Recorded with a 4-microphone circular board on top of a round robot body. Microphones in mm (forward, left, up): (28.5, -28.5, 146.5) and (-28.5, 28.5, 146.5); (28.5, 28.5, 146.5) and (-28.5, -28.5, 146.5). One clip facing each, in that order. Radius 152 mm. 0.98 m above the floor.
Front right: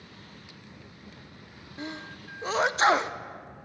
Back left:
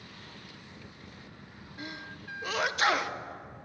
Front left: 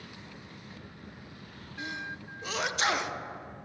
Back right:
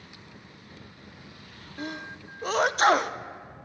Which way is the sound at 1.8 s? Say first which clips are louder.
Front right 4 dB, back right 2 dB; 100° right.